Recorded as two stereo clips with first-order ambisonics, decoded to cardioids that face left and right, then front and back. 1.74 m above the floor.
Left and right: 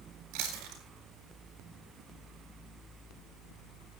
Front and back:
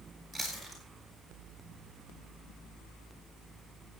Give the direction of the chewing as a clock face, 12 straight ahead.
3 o'clock.